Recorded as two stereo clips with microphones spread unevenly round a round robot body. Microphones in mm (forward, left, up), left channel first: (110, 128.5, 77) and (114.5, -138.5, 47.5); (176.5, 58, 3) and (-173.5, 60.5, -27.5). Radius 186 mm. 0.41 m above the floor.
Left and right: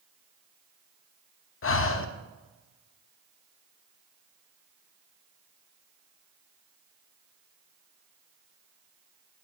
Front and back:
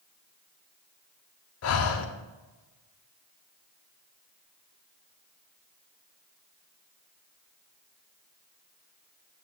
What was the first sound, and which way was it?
Breathing, 45° left.